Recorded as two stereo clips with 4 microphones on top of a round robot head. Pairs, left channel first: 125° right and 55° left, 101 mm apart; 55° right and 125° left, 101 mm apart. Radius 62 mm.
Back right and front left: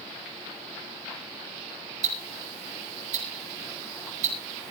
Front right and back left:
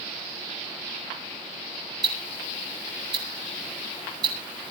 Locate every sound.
2.0 s ticking: 70° left, 5 m